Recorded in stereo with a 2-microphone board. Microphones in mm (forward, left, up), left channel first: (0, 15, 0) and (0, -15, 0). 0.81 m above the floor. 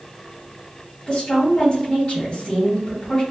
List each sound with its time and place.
1.1 s a woman speaking: 30° left (ahead or behind), 1.3 m